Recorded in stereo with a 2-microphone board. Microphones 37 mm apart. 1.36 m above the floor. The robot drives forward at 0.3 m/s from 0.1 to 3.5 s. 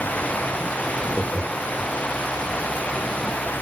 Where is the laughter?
40° left (ahead or behind), 1.9 m; by 1.9 s 35° left (ahead or behind), 2 m.